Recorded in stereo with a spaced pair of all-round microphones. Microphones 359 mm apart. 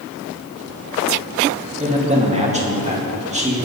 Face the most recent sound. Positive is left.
turn(degrees=-20)  # may be behind; listen again after turning